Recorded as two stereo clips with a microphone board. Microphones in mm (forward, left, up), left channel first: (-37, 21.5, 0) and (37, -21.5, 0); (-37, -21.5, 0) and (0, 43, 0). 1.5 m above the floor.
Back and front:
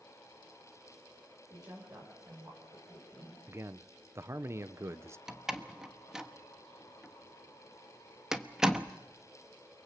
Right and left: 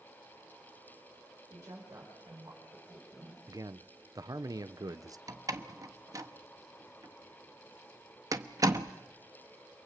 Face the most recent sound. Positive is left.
turn(degrees=50)